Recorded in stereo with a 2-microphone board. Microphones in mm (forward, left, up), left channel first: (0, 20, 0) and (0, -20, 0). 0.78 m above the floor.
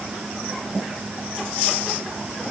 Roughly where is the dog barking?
No dog barking in this recording.